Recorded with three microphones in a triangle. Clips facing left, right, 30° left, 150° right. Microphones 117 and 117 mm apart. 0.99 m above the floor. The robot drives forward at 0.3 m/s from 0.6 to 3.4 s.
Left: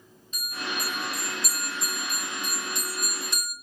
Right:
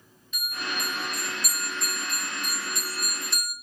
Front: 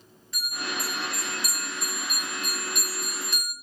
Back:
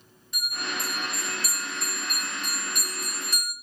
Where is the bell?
140° left, 0.8 m; by 3.5 s 160° left, 1.5 m.